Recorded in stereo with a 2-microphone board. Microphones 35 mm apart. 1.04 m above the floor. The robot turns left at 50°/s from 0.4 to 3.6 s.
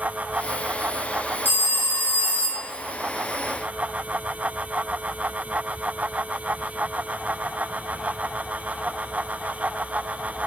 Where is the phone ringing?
90° left, 1.0 m; by 2.7 s 25° left, 1.0 m.